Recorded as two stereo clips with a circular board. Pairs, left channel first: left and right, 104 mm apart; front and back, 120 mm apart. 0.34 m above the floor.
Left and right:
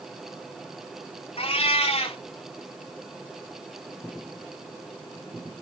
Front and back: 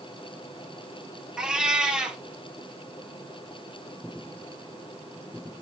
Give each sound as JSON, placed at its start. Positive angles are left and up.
{"t": 1.4, "sound": "a cat meowing", "azimuth_deg": 95, "distance_m": 0.9}